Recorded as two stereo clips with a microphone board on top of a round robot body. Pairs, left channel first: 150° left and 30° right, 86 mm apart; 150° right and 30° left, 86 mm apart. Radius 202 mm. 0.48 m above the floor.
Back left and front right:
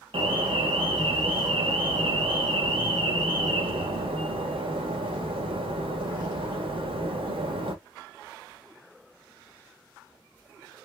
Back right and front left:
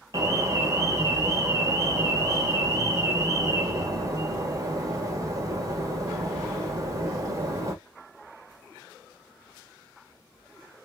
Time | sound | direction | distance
0.1 | an alarm | 20° right | 1.4 m